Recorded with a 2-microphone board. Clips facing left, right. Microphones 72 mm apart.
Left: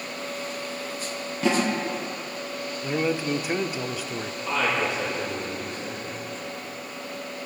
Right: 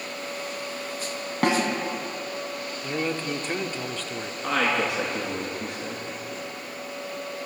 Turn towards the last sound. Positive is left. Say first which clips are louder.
# right 1 dB
turn(degrees=-75)  # may be behind; listen again after turning